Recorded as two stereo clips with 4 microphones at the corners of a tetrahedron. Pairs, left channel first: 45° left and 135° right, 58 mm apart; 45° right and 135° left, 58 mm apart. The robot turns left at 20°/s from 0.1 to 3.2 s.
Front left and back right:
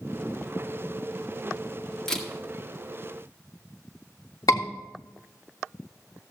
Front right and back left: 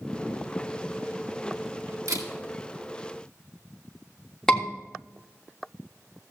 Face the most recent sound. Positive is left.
turn(degrees=35)